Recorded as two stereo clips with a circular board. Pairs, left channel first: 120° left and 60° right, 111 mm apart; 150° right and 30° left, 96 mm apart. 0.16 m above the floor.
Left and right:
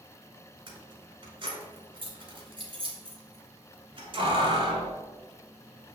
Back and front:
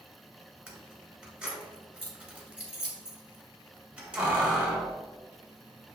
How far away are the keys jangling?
About 1.3 m.